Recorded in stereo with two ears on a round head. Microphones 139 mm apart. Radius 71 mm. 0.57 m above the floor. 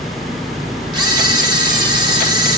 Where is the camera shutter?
30° right (ahead or behind), 1.2 m.